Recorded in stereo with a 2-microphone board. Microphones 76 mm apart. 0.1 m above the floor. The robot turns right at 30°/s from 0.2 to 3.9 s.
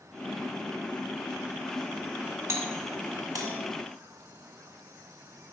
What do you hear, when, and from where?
2.5 s a doorbell: 40° right (ahead or behind), 3 m; by 3.6 s 50° right (ahead or behind), 3 m